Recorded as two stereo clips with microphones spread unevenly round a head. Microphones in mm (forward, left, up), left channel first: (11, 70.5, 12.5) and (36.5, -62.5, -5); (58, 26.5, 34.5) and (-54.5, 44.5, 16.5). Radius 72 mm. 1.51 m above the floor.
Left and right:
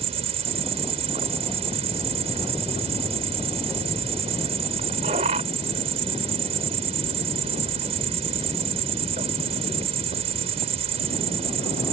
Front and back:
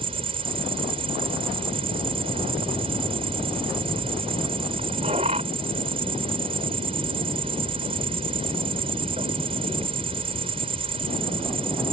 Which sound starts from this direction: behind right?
An insect, at 0.0 s.